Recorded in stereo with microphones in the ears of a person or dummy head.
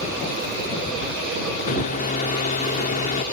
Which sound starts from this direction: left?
A microwave, at 1.7 s.